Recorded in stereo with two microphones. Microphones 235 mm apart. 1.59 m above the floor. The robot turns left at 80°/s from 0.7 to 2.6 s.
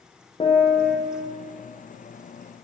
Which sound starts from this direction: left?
A piano, at 0.4 s.